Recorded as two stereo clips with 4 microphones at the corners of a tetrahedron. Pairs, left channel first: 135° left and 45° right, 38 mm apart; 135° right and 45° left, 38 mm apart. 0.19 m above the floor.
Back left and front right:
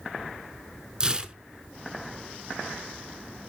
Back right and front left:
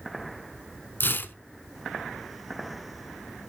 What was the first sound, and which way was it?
Tearing paper, 110° right.